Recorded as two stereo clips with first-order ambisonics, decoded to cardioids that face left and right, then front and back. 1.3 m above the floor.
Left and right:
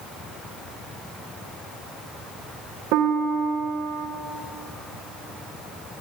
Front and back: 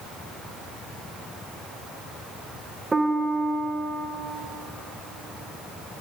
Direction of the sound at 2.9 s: 105° right.